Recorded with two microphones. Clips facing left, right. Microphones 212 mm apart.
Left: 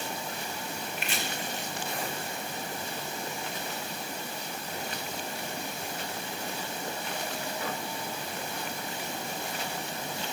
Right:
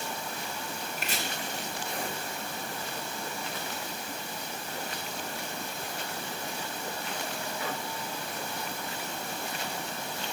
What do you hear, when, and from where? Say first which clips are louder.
1.0 s chopping: even; 40° right (ahead or behind), 2.0 m